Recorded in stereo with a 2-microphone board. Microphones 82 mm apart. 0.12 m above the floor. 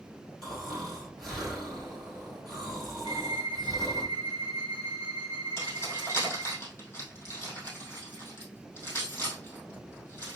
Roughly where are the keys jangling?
Left.